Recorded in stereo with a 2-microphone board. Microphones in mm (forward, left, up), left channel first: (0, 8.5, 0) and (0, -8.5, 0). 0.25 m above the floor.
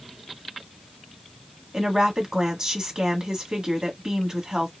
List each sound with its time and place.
1.7 s a woman speaking: 50° right (ahead or behind), 1.5 m